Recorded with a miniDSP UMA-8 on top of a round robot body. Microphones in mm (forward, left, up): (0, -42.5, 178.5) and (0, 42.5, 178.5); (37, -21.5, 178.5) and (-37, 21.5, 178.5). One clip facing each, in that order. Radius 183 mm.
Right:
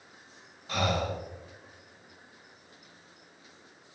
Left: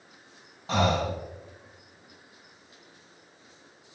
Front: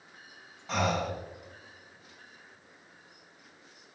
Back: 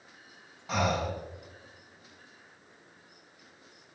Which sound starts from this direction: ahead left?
Breathing, at 0.7 s.